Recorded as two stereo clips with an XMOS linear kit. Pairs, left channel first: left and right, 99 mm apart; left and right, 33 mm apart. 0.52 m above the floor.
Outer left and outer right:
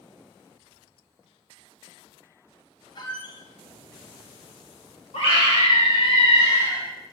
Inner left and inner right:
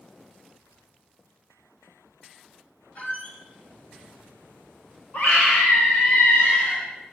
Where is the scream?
75° left (ahead or behind), 3.5 m.